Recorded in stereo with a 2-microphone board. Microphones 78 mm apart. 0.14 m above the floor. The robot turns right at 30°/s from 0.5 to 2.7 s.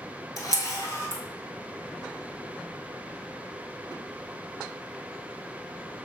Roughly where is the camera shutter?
Left.